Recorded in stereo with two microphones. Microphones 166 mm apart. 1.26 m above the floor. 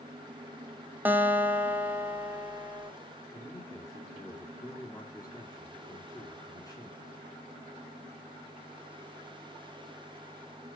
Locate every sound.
1.1 s a guitar: 10° right (ahead or behind), 1.6 m
3.3 s a man speaking: 25° left (ahead or behind), 3 m